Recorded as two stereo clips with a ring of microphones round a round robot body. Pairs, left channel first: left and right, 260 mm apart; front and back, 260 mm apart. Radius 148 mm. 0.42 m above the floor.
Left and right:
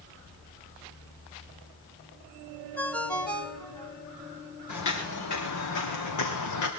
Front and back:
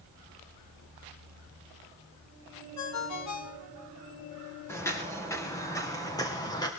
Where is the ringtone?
5° left, 2.5 m.